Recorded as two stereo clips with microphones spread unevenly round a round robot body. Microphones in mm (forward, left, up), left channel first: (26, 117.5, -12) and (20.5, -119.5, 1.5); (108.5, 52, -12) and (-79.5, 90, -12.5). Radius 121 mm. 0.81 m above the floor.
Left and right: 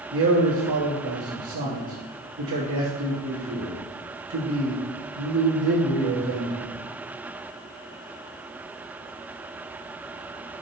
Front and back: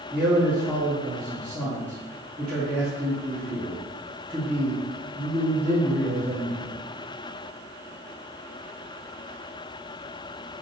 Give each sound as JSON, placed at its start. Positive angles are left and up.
{"t": 0.1, "sound": "a man speaking", "azimuth_deg": -115, "distance_m": 1.4}